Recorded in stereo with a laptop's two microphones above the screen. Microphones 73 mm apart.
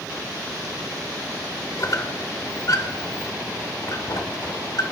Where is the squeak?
50° left (ahead or behind), 0.8 m.